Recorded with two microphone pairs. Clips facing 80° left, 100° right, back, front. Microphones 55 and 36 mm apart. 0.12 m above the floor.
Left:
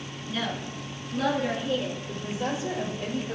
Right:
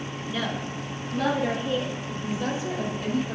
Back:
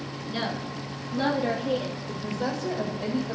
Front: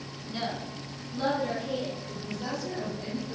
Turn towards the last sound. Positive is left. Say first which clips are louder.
# right 2 dB, back 5 dB
turn(degrees=150)